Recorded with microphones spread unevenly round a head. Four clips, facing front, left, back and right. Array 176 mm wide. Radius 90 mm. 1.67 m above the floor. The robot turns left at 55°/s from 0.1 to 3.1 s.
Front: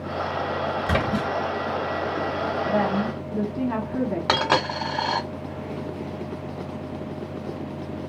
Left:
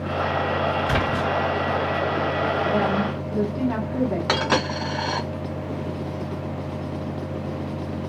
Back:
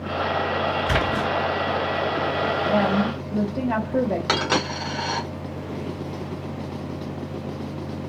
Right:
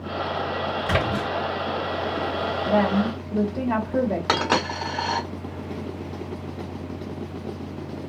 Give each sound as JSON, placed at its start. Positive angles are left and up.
{"t": 0.9, "sound": "a splash", "azimuth_deg": -35, "distance_m": 1.5}
{"t": 2.7, "sound": "a woman speaking", "azimuth_deg": -125, "distance_m": 1.3}
{"t": 4.3, "sound": "a dropped coin", "azimuth_deg": -35, "distance_m": 1.4}